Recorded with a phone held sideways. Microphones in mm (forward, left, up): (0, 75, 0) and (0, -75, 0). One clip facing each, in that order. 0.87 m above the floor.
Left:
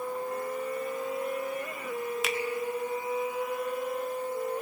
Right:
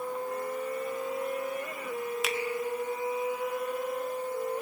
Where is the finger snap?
Centre (ahead or behind), 0.7 m.